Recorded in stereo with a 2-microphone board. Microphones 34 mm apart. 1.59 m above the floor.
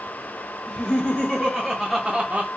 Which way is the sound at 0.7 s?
30° left (ahead or behind).